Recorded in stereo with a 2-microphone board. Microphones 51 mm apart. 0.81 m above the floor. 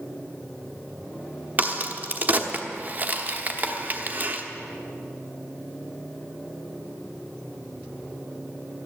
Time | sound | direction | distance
1.6 | a crack | 35° right (ahead or behind) | 1.0 m